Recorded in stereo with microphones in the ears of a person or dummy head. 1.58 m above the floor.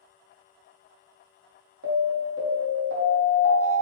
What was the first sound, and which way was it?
An alarm, 75° right (ahead or behind).